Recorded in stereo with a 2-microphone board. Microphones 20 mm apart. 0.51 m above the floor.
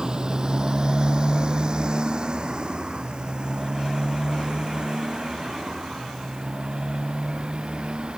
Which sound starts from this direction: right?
A motorcycle, at 0.0 s.